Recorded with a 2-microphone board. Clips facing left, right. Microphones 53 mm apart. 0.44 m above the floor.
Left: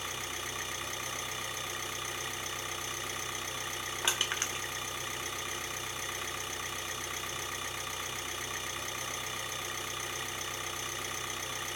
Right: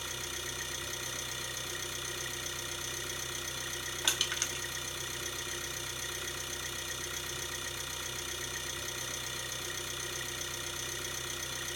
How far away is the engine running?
About 1.6 m.